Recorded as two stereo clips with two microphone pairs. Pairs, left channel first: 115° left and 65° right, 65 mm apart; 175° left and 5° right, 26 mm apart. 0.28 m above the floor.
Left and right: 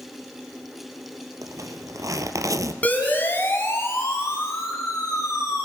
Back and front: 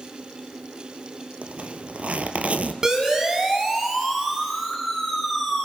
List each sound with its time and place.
1.4 s a zipper: 40° right, 1.3 m
2.8 s a siren: 55° left, 2.5 m; by 5.7 s 75° left, 5.5 m